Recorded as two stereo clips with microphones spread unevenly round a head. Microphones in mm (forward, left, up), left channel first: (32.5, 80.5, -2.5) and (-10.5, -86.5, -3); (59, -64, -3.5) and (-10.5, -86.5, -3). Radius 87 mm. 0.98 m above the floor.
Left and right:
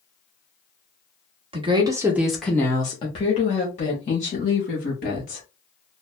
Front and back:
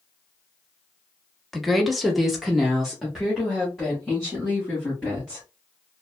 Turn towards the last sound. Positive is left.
turn(degrees=110)